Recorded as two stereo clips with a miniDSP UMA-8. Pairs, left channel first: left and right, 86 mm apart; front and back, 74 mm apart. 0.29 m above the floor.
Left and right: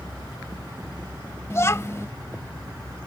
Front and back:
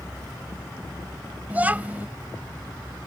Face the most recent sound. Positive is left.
turn(degrees=125)